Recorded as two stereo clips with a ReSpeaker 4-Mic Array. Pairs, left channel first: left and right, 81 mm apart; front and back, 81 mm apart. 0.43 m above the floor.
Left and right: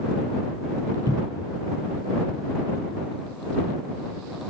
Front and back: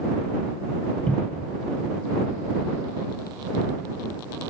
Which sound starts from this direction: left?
A cupboard door, at 1.1 s.